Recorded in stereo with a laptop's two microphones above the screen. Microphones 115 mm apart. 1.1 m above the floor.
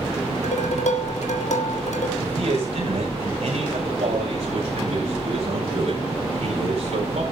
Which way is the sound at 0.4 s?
85° left.